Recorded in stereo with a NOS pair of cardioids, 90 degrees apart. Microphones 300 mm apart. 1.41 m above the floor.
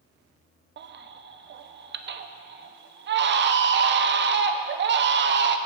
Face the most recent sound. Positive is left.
turn(degrees=-40)